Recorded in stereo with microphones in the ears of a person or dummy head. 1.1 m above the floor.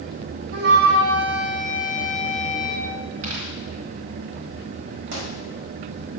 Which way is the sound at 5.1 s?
80° right.